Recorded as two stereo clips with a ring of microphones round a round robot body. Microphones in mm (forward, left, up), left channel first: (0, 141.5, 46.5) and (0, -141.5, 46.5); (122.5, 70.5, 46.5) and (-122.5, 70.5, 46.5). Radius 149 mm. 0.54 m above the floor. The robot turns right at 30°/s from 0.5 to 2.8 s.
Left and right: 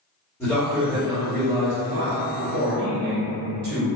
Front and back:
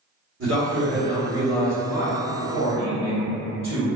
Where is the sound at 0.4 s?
170° left, 1.5 m; by 1.7 s 155° right, 1.5 m.